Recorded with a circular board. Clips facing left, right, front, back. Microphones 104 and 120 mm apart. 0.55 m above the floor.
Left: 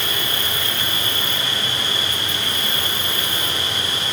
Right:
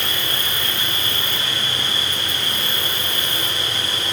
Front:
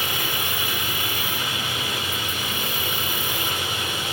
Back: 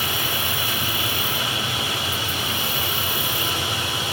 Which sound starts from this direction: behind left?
An insect, at 0.0 s.